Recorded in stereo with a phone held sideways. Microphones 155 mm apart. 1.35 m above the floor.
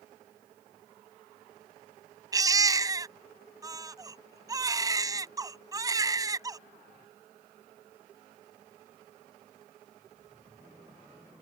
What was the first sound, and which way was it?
A baby crying, 25° right (ahead or behind).